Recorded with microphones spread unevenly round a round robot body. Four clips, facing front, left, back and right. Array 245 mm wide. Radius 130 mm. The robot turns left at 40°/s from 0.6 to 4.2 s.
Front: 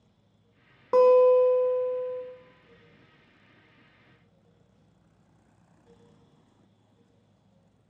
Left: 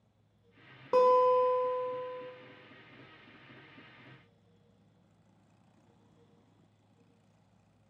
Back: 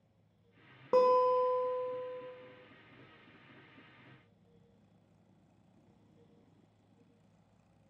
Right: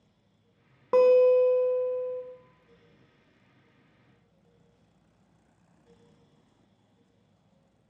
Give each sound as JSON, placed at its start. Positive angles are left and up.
{"t": 0.9, "sound": "a guitar", "azimuth_deg": -35, "distance_m": 0.7}